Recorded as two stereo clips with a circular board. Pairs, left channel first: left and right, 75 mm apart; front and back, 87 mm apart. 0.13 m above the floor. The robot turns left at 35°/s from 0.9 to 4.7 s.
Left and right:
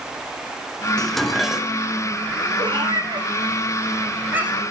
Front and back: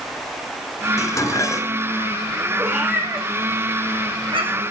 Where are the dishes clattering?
15° left, 1.0 m; by 1.9 s 20° right, 1.0 m.